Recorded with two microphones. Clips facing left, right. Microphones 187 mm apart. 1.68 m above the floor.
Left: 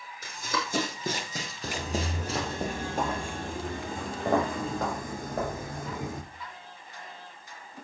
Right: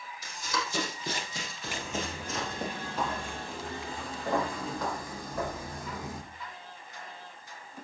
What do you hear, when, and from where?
0.2 s running footsteps: 55° left (ahead or behind), 5.5 m; by 2.6 s 30° left (ahead or behind), 4.5 m
1.6 s footsteps: 40° left (ahead or behind), 2.5 m; by 6.2 s 50° left (ahead or behind), 4 m